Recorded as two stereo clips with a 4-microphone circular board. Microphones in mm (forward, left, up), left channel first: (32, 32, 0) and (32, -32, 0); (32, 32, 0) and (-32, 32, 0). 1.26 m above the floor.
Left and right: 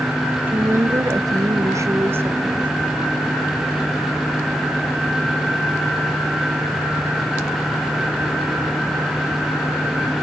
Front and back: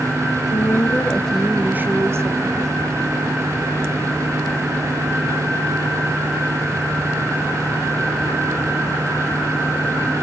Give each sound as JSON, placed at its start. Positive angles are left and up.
{"t": 0.5, "sound": "a woman speaking", "azimuth_deg": -35, "distance_m": 0.9}